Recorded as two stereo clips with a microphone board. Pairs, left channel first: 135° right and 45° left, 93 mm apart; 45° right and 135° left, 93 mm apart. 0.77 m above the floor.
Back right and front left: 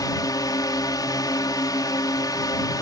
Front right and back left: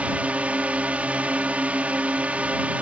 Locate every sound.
0.0 s a drone: 155° right